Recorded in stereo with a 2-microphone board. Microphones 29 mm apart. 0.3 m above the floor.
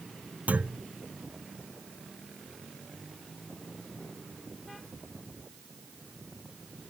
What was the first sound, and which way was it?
A clunk, 65° right (ahead or behind).